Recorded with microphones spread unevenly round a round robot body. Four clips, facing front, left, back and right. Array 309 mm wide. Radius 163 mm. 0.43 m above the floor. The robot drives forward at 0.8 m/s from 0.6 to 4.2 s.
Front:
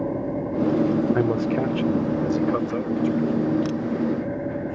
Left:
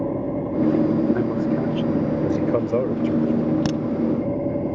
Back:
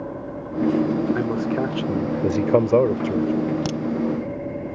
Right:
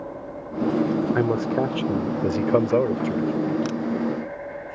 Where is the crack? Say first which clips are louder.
Left 4 dB, even; 105° left.